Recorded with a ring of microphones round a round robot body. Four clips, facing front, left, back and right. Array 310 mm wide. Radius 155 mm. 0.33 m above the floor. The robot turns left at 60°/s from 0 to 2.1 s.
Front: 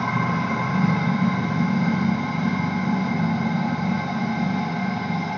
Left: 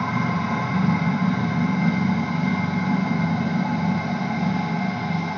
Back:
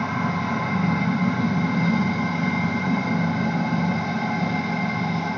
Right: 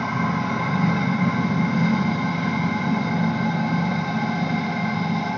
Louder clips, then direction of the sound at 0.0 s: Even, front 1 dB; 5° right.